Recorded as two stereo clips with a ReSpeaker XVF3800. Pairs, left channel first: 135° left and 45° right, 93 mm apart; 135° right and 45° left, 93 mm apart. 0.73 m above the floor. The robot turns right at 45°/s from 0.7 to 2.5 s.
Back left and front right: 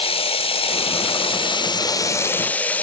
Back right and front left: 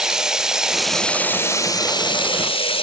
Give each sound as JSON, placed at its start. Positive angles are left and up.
{"t": 0.0, "sound": "running water", "azimuth_deg": 130, "distance_m": 1.1}